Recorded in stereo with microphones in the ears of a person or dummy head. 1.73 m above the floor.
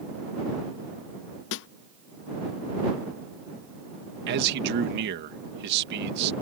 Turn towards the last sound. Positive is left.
turn(degrees=-65)  # may be behind; listen again after turning